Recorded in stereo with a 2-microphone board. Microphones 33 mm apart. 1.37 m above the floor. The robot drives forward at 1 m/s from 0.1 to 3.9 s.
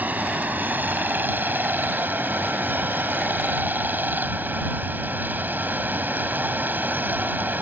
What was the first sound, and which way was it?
Running water, 55° right (ahead or behind).